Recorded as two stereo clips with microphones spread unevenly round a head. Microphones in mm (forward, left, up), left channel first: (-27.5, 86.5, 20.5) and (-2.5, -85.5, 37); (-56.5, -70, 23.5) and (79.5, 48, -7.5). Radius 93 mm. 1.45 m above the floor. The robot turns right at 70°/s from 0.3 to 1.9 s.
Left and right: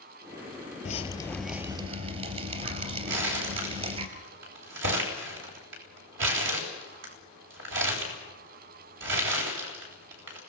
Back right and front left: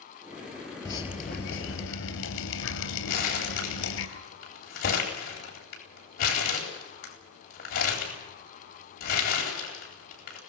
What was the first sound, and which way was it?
Dripping, 150° left.